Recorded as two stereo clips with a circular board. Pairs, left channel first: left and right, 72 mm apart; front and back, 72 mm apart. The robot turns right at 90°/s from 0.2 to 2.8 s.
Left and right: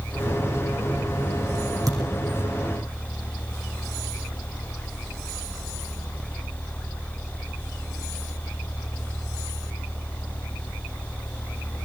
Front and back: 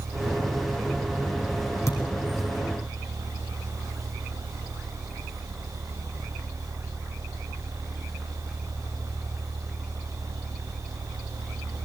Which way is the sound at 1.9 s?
50° right.